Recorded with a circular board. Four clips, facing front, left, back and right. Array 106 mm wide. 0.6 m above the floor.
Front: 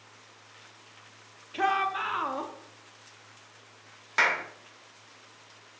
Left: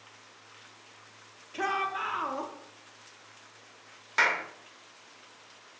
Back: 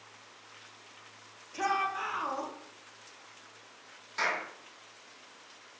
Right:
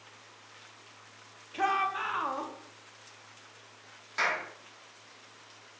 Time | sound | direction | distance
1.5 | a shout | 10° right | 0.6 m
4.2 | a clap | 30° left | 0.6 m